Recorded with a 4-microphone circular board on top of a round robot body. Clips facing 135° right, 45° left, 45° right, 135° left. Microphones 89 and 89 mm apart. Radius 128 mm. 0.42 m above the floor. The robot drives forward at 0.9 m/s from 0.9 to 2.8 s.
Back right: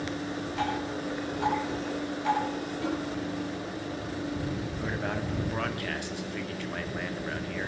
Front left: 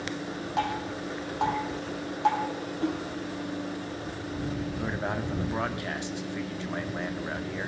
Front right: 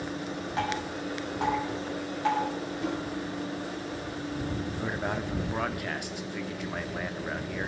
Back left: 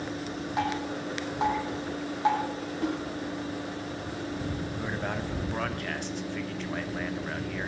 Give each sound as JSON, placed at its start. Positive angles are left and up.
{"t": 0.6, "sound": "dripping", "azimuth_deg": 60, "distance_m": 7.5}
{"t": 2.8, "sound": "a snare drum", "azimuth_deg": 100, "distance_m": 8.5}
{"t": 4.8, "sound": "a man speaking", "azimuth_deg": 20, "distance_m": 1.4}